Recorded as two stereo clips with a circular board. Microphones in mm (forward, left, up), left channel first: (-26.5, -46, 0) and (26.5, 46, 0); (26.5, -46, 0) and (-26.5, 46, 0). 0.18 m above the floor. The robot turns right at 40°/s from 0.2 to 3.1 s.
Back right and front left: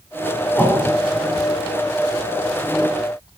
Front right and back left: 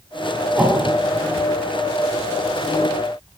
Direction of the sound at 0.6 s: Straight behind.